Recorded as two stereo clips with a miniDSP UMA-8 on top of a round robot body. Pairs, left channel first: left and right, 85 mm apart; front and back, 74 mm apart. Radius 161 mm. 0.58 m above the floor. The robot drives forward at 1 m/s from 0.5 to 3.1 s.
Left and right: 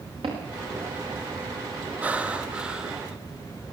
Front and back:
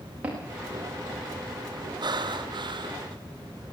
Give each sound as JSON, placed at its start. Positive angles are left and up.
{"t": 0.2, "sound": "footsteps", "azimuth_deg": -110, "distance_m": 9.5}
{"t": 2.0, "sound": "breathing", "azimuth_deg": -165, "distance_m": 1.0}